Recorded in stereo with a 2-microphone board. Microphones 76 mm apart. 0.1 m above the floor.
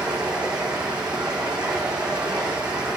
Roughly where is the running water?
Centre.